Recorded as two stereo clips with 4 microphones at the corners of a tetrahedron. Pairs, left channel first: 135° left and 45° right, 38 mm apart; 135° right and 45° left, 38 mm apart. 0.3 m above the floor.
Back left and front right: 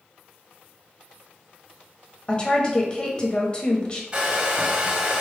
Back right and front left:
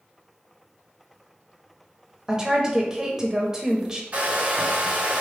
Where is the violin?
No violin in this recording.